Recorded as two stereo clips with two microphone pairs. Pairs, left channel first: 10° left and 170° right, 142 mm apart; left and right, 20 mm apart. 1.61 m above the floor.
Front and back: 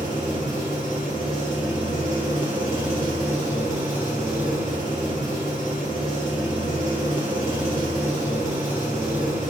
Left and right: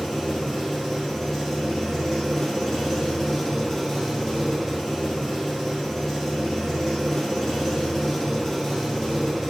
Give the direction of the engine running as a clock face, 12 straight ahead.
7 o'clock.